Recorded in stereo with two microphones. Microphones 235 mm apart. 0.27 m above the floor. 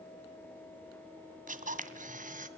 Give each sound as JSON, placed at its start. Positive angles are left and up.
{"t": 1.5, "sound": "a camera shutter", "side_deg": -35, "distance_m": 2.0}